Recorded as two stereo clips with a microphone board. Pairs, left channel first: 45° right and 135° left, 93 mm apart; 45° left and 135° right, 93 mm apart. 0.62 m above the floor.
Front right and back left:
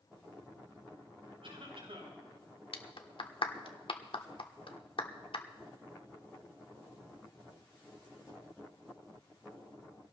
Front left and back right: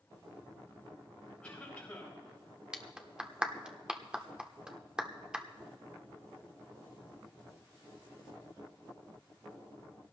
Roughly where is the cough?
Behind left.